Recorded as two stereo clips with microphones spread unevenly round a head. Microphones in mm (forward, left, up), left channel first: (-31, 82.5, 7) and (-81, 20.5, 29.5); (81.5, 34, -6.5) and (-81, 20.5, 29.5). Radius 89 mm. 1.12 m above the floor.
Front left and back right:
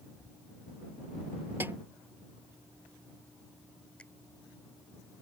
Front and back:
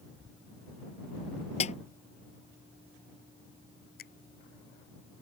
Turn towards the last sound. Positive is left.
turn(degrees=-30)